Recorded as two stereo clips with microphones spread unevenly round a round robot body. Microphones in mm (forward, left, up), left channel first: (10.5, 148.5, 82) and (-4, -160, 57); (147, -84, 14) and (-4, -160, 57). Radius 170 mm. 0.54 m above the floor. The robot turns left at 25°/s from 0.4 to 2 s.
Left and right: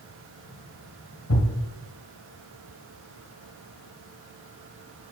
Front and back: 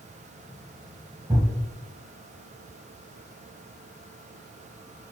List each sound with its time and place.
1.3 s a thud: 130° left, 1.5 m; by 1.5 s 125° left, 1.5 m